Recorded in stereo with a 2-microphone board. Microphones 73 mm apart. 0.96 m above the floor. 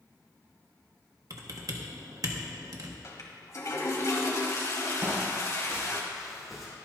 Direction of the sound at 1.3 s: 50° right (ahead or behind).